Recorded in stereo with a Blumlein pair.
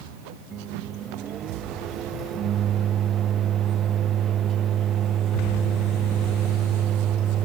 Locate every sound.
0.5 s a microwave: 30° right